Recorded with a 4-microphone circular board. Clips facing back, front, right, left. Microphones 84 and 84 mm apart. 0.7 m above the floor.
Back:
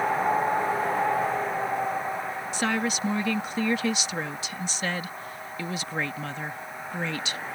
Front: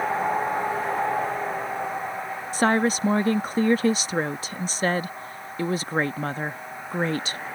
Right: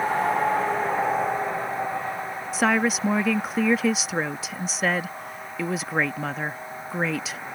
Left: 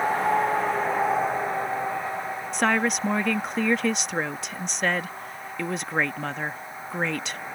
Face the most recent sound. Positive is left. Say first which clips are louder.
# front 7 dB, right 1 dB
turn(degrees=-5)